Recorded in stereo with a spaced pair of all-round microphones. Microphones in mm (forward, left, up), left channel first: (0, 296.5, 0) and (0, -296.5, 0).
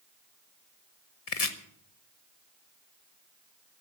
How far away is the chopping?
About 1.2 m.